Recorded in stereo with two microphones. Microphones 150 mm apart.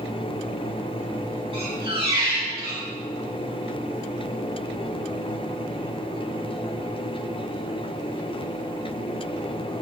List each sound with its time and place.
1.5 s a squeak: 40° right (ahead or behind), 4 m